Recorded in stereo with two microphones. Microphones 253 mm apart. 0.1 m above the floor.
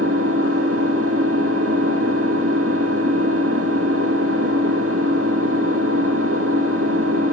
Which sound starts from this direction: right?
An engine running, at 0.0 s.